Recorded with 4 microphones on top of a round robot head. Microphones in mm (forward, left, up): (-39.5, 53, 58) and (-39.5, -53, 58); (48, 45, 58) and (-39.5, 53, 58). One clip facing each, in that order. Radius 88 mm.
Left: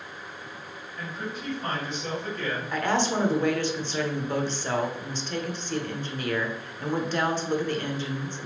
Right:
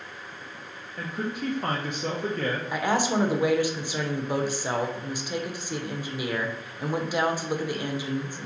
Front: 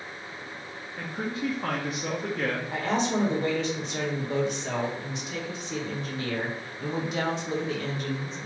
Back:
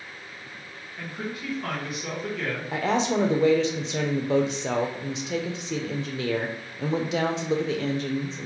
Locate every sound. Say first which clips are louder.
1.0 s a man speaking: right 5 dB, front 3 dB; 65° right, 0.6 m
2.7 s a woman speaking: even, back 5 dB; 170° right, 0.7 m